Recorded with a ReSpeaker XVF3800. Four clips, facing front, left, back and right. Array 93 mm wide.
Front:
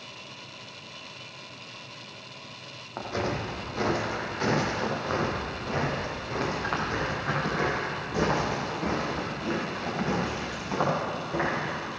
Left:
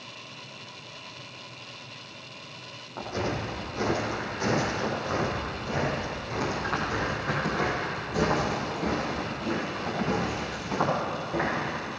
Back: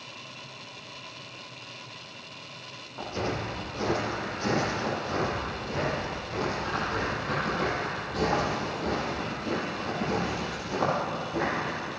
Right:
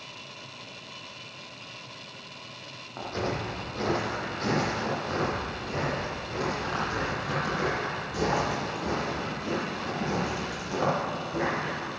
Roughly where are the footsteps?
Ahead.